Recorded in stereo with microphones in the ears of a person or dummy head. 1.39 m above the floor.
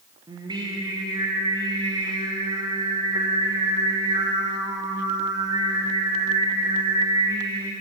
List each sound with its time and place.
0.3 s singing: 20° right (ahead or behind), 1.0 m